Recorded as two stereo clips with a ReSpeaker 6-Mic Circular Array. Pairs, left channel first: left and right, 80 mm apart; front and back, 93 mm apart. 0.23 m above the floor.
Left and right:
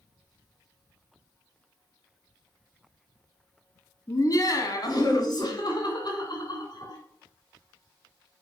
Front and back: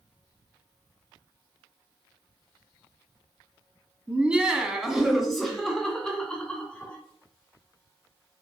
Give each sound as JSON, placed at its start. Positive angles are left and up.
{"t": 4.1, "sound": "laughter", "azimuth_deg": 110, "distance_m": 1.8}